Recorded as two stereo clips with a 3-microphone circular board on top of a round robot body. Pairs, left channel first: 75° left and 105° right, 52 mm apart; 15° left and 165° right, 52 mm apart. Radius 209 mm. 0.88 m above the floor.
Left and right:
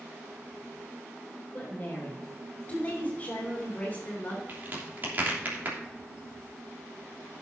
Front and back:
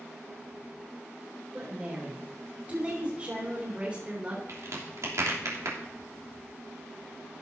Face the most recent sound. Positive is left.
turn(degrees=-155)